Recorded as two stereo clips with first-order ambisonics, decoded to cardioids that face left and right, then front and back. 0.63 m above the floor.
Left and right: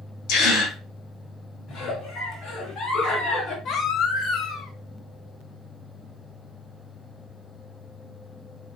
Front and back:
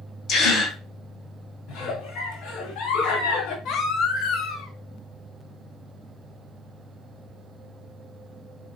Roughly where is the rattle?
No rattle in this recording.